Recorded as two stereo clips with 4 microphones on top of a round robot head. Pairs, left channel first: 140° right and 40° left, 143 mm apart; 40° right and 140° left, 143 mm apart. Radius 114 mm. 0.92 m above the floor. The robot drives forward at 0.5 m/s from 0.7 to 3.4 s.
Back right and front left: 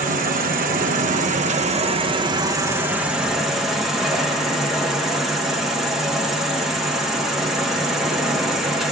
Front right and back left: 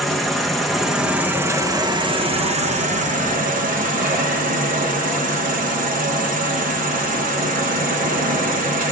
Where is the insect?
50° left, 1.2 m; by 8.9 s 125° left, 1.2 m.